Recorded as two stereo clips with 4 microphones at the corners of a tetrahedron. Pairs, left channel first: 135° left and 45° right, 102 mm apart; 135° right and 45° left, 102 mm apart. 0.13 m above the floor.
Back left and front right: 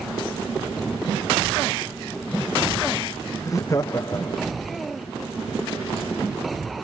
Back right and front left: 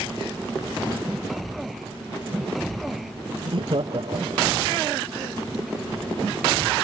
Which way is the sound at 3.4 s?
75° left.